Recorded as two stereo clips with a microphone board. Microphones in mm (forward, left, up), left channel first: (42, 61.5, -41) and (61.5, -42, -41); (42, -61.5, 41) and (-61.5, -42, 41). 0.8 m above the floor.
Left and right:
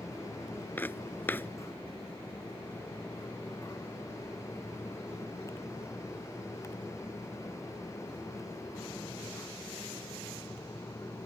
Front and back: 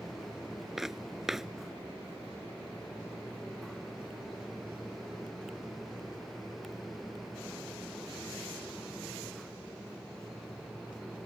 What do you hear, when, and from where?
0.8 s footsteps: 90° left